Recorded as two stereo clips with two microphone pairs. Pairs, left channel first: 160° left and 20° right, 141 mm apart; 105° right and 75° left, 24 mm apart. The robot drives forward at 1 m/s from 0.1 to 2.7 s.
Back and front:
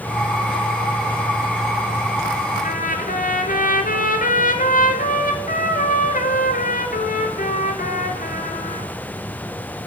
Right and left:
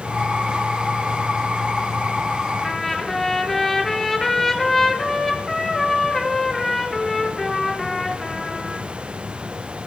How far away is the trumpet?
About 1.7 m.